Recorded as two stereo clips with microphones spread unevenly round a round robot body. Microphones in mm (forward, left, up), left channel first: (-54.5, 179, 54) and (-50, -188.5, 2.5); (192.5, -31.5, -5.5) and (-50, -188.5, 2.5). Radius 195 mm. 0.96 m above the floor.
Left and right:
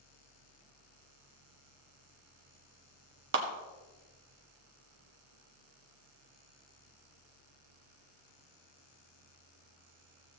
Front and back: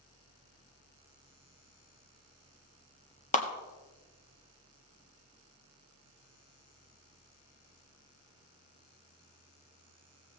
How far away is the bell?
No bell in this recording.